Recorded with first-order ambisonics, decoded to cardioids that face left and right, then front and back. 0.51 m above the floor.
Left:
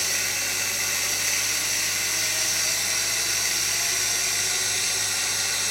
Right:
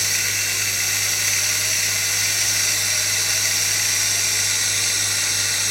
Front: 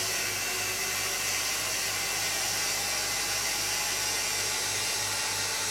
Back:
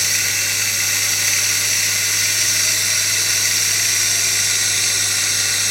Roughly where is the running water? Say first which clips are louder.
Right 4 dB, back 12 dB; behind.